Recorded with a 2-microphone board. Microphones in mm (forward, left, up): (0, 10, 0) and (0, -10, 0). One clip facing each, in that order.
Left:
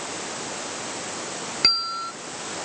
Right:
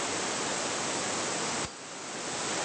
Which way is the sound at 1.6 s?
65° left (ahead or behind).